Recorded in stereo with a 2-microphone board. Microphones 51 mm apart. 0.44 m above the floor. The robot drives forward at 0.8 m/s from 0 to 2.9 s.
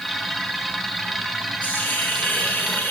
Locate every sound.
1.6 s a hiss: 30° left (ahead or behind), 4.5 m; by 2.9 s 40° left (ahead or behind), 3.5 m